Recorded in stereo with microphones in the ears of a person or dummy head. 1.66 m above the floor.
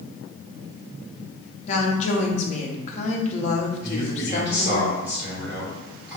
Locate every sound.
1.7 s a woman speaking: 40° left (ahead or behind), 1.0 m
3.8 s a man speaking: 10° right (ahead or behind), 2 m